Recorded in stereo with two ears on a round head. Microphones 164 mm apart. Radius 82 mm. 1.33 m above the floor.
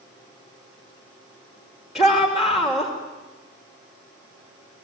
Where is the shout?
Centre (ahead or behind), 3 m.